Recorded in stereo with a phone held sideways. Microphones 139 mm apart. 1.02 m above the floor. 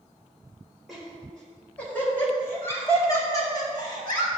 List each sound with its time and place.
0.9 s laughter: centre (ahead or behind), 4 m; by 4.3 s 35° left (ahead or behind), 5.5 m